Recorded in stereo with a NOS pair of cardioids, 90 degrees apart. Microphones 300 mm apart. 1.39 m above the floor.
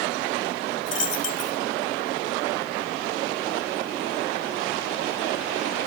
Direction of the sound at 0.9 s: 60° left.